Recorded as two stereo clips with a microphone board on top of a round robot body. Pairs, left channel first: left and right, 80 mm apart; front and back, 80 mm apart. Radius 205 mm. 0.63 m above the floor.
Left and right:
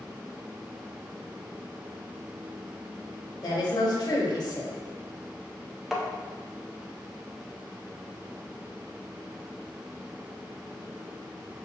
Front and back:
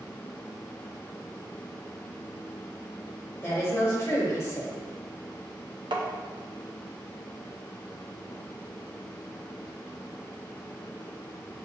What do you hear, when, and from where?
3.4 s a woman speaking: 55° left, 1.1 m
5.9 s tapping: straight behind, 0.8 m